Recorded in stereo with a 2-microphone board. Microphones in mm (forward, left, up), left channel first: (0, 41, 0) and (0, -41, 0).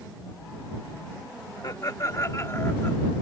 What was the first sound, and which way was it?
Laughter, 55° left (ahead or behind).